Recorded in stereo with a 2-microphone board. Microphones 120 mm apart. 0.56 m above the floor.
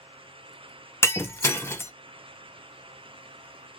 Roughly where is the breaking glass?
Left.